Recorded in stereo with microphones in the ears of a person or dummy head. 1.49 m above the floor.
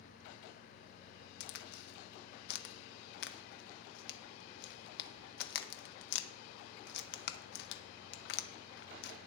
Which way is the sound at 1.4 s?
65° left (ahead or behind).